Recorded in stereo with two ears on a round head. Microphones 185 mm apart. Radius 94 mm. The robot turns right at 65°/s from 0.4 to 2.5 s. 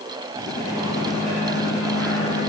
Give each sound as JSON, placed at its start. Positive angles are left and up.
{"t": 0.5, "sound": "a microwave", "azimuth_deg": -85, "distance_m": 6.0}